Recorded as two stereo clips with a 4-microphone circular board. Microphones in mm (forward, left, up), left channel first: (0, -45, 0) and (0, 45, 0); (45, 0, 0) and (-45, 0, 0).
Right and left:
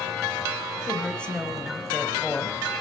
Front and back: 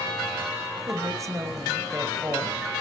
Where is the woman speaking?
160° right, 1.8 m.